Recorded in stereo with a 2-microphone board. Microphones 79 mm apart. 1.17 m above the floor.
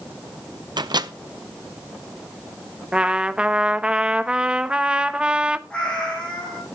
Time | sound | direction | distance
0.8 | a microwave | 70° right (ahead or behind) | 0.6 m
2.9 | a trumpet | 15° right (ahead or behind) | 0.6 m
5.7 | a cat meowing | 15° left (ahead or behind) | 6.5 m